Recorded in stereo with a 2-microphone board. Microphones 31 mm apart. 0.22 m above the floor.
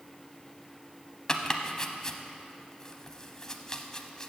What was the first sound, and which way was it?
Chopping, 20° left (ahead or behind).